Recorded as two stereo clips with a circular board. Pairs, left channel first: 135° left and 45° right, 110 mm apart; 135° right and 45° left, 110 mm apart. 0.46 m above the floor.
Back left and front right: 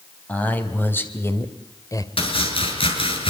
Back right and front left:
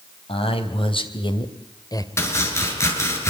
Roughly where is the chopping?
Behind.